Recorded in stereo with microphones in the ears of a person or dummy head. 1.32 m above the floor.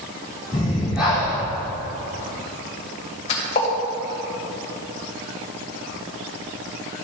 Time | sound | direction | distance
0.5 | breathing | 5° right (ahead or behind) | 2.5 m
3.3 | a splash | 35° left (ahead or behind) | 2 m